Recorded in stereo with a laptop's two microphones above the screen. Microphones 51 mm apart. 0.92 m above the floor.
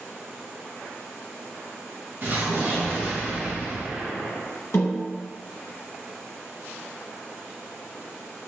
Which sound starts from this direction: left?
A snare drum, at 4.7 s.